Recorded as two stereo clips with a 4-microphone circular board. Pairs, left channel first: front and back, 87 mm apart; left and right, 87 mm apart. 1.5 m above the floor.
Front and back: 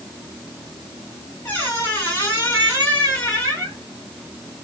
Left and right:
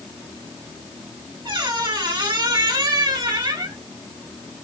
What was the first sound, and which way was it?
A squeak, 65° right.